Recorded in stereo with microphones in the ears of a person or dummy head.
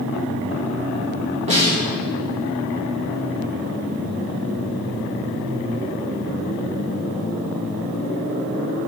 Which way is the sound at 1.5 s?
30° right (ahead or behind).